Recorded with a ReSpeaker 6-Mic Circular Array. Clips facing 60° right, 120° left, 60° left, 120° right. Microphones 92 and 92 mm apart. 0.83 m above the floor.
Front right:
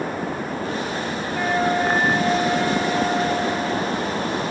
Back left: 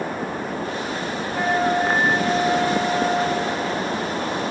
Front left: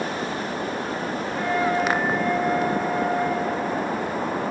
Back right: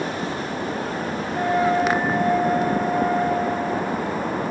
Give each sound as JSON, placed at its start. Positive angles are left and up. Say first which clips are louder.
{"t": 1.3, "sound": "a flute", "louder": "back left 1 dB, back right 4 dB", "azimuth_deg": -160, "distance_m": 4.0}